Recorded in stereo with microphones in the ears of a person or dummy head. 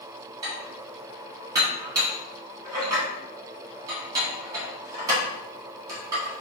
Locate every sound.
0.4 s dishes clattering: 20° right (ahead or behind), 1.4 m